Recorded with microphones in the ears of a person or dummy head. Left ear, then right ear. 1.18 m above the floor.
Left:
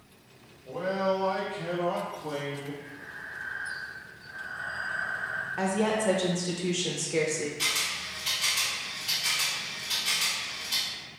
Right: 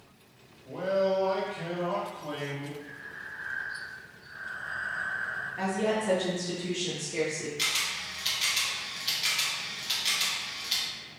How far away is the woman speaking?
About 0.5 m.